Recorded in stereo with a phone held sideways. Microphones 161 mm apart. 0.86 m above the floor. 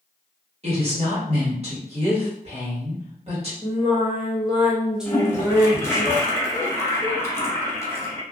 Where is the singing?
5° right (ahead or behind), 0.8 m.